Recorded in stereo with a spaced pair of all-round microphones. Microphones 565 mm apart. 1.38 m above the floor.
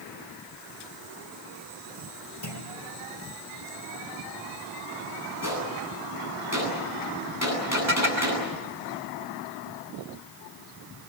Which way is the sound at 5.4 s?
25° left (ahead or behind).